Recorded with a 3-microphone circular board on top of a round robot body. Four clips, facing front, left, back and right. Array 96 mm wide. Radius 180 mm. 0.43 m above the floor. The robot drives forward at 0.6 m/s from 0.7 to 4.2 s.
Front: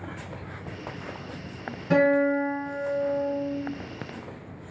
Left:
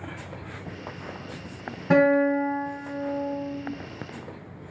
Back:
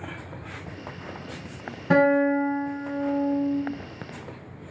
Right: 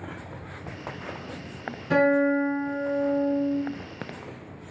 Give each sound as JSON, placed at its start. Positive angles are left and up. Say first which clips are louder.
{"t": 1.9, "sound": "a guitar", "louder": "left 2 dB, back 1 dB", "azimuth_deg": 135, "distance_m": 3.0}